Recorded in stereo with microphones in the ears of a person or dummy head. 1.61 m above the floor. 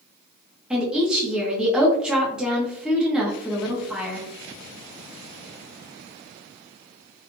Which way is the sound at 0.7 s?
5° right (ahead or behind).